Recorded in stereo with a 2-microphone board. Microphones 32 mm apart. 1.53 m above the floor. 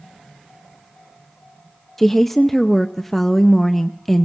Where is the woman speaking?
10° left (ahead or behind), 0.5 m.